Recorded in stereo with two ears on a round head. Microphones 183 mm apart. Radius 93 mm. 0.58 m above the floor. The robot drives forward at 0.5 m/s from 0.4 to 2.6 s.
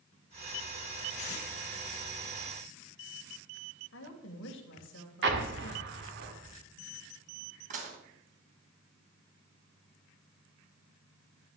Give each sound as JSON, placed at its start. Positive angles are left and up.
{"t": 1.2, "sound": "tape being pulled", "side_deg": 35, "distance_m": 4.5}
{"t": 3.9, "sound": "a woman speaking", "side_deg": 60, "distance_m": 3.0}
{"t": 5.2, "sound": "an explosion", "side_deg": -55, "distance_m": 1.9}
{"t": 7.7, "sound": "dishes clattering", "side_deg": -40, "distance_m": 3.0}